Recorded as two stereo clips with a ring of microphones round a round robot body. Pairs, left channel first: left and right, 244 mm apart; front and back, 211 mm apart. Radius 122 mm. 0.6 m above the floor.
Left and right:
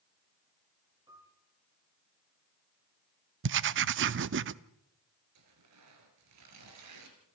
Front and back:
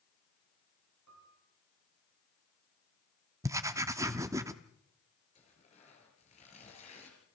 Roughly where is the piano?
Behind.